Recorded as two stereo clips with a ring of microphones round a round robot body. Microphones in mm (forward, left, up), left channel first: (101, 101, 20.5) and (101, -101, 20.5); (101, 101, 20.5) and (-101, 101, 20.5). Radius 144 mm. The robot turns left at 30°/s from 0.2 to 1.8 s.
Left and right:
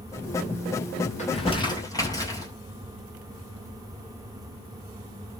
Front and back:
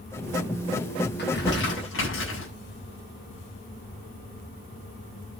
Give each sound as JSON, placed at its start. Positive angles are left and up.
{"t": 1.2, "sound": "crumpling", "azimuth_deg": 35, "distance_m": 8.5}